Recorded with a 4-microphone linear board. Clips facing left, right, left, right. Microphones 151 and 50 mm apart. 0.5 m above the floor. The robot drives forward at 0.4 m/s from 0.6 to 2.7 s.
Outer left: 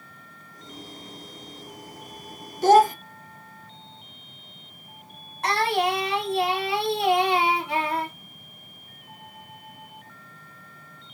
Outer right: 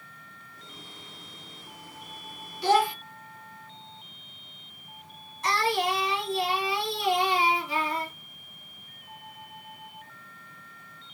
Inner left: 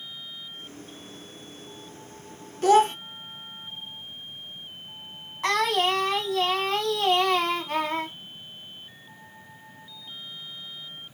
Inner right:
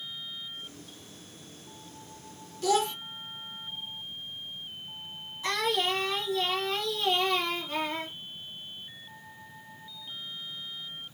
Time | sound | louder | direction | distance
2.6 | a child speaking | outer left 7 dB, inner left 8 dB | 45° left (ahead or behind) | 0.5 m
5.4 | singing | outer left 3 dB, inner left 5 dB | 65° left (ahead or behind) | 1.5 m